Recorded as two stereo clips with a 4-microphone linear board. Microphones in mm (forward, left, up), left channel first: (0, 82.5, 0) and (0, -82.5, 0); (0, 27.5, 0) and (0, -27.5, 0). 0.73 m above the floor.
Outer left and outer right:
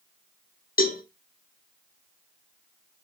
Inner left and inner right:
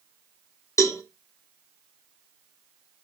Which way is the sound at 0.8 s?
60° left (ahead or behind).